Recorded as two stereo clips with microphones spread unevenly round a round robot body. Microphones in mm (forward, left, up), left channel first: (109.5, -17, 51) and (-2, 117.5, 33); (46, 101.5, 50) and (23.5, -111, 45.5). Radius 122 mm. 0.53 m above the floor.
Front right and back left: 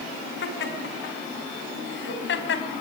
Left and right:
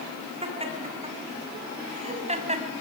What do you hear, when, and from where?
0.4 s laughter: 30° right, 6 m; by 2.7 s 35° right, 4 m